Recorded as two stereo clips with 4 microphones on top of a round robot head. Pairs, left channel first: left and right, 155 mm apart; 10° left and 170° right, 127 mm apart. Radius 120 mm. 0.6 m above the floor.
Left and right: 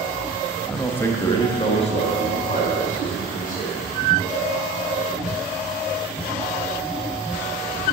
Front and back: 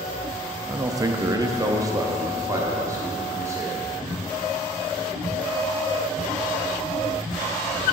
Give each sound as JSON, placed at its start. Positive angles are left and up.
{"t": 0.7, "sound": "a man speaking", "azimuth_deg": 180, "distance_m": 0.6}